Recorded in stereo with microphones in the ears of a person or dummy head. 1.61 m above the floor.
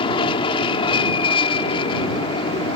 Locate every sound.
0.0 s an aircraft: 30° left (ahead or behind)